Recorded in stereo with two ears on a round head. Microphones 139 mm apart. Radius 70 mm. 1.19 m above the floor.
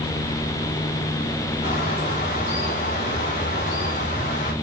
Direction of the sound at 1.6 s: 55° left (ahead or behind).